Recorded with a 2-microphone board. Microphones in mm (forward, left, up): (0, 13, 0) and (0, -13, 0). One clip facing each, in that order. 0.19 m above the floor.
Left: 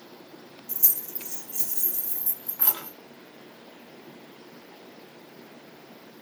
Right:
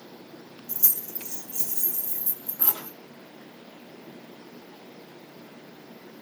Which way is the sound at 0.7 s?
30° right (ahead or behind).